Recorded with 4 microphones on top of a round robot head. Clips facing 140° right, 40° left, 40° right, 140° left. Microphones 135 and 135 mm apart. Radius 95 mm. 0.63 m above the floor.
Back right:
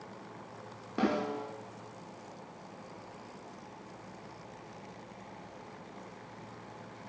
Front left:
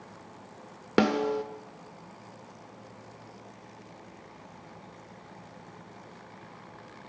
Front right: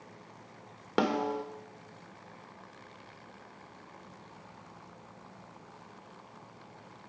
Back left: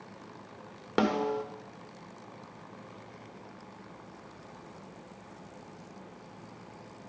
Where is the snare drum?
50° left, 0.9 m.